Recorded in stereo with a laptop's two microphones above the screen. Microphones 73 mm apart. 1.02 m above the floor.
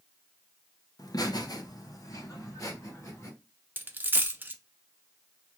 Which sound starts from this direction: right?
A dropped coin, at 3.8 s.